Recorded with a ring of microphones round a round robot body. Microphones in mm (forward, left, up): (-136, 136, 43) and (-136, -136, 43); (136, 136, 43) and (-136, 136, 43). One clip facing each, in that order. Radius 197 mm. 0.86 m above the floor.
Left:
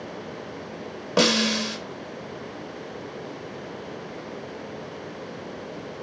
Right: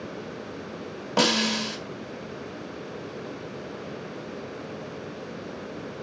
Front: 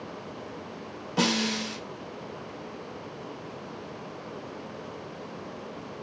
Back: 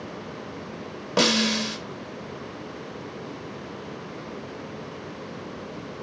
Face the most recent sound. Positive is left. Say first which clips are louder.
# left 3 dB, back 4 dB
turn(degrees=170)